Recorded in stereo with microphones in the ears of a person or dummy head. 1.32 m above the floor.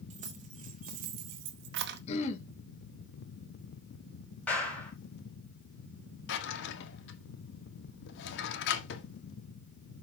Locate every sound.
0.1 s keys jangling: 40° right (ahead or behind), 2 m; by 2.0 s 60° right (ahead or behind), 1.0 m
2.1 s throat clearing: 40° left (ahead or behind), 1.5 m
4.5 s a clap: 10° left (ahead or behind), 7 m
6.3 s a drawer: 70° left (ahead or behind), 1.6 m